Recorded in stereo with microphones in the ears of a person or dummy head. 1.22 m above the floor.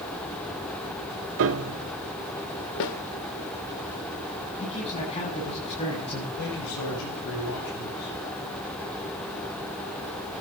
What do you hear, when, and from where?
1.4 s a piano: 65° right (ahead or behind), 1.2 m
2.8 s a snare drum: 65° left (ahead or behind), 1.7 m
4.6 s a man speaking: 30° left (ahead or behind), 8.5 m
6.4 s a man speaking: 70° left (ahead or behind), 7.5 m